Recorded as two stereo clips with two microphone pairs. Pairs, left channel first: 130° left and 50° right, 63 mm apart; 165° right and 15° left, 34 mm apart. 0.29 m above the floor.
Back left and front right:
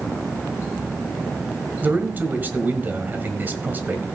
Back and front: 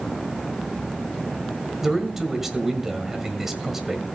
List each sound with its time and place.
1.8 s a man speaking: 50° right, 1.5 m